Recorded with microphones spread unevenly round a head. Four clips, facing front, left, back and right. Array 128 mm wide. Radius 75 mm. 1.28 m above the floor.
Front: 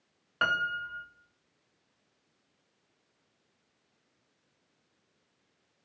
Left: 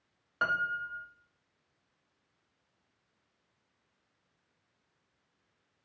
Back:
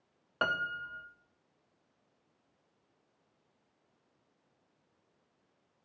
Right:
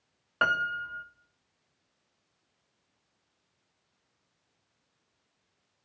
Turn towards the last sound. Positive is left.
turn(degrees=-140)